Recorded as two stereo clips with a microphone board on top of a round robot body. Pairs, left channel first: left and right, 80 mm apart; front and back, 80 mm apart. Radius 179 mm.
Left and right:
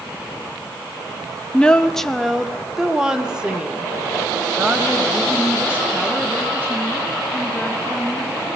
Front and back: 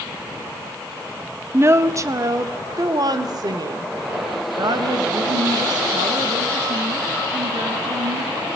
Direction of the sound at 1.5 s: 160° left.